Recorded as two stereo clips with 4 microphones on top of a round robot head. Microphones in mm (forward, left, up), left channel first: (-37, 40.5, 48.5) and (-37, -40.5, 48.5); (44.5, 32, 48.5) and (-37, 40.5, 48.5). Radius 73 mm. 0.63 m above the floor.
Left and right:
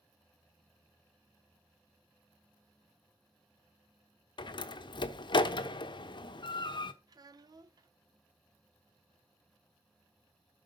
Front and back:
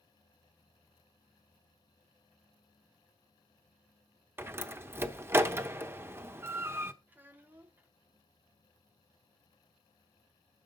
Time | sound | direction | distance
4.4 | a door slam | 115° left | 0.9 m
7.1 | a child speaking | 120° right | 1.1 m